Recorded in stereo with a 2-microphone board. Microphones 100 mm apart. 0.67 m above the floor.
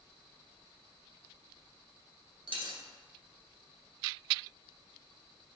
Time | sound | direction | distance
2.5 | a dropped coin | 55° right (ahead or behind) | 1.2 m